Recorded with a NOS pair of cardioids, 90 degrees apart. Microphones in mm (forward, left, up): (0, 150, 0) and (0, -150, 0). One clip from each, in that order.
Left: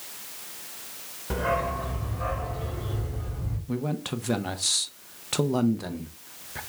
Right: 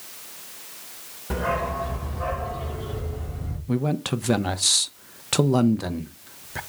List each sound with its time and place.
1.3 s a dog barking: 10° right, 1.7 m; by 3.6 s 20° right, 3 m
3.7 s a man speaking: 25° right, 0.6 m